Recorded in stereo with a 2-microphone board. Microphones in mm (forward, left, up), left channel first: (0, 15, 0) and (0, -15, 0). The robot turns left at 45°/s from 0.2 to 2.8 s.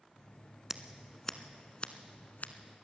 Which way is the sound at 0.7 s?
15° right (ahead or behind).